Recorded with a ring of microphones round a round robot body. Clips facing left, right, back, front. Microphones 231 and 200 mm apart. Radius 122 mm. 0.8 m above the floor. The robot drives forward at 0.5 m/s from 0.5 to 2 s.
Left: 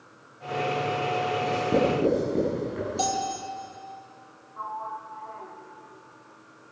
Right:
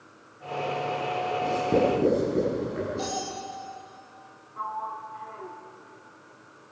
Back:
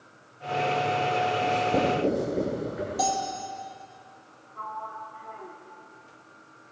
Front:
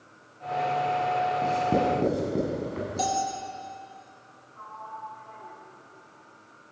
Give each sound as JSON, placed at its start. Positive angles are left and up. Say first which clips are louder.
{"t": 1.4, "sound": "writing", "louder": "right 1 dB, front 1 dB", "azimuth_deg": 0, "distance_m": 8.5}
{"t": 3.0, "sound": "a bell", "louder": "left 2 dB, even", "azimuth_deg": 60, "distance_m": 7.0}
{"t": 4.6, "sound": "a sliding door", "louder": "right 1 dB, back 4 dB", "azimuth_deg": -140, "distance_m": 2.5}